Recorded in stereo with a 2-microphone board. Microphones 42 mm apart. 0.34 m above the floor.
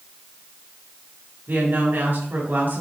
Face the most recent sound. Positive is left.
turn(degrees=-50)  # may be behind; listen again after turning